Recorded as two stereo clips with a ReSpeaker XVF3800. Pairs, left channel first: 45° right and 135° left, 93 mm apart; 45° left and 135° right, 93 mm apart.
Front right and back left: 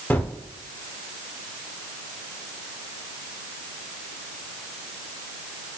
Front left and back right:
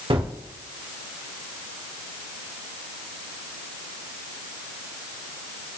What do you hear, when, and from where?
0.1 s a gunshot: 115° right, 0.9 m